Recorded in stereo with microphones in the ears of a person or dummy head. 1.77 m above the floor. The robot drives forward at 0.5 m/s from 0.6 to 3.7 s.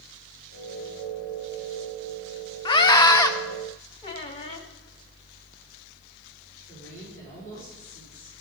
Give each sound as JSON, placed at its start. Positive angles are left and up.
{"t": 2.6, "sound": "a scream", "side_deg": 25, "distance_m": 0.6}
{"t": 4.0, "sound": "a squeak", "side_deg": 25, "distance_m": 0.7}
{"t": 6.7, "sound": "a woman speaking", "side_deg": 80, "distance_m": 5.5}